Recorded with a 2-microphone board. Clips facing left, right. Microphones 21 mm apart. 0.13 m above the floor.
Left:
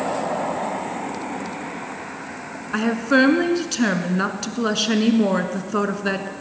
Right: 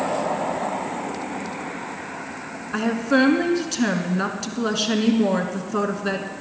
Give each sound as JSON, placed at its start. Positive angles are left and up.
{"t": 2.7, "sound": "a woman speaking", "side_deg": 15, "distance_m": 1.1}